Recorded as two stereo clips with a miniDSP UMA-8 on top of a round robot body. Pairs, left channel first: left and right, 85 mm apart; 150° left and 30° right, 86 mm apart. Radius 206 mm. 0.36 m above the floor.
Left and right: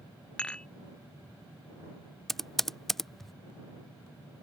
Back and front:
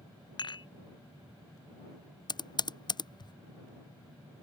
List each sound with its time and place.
0.4 s dishes clattering: 170° left
2.3 s typing on a keyboard: 175° left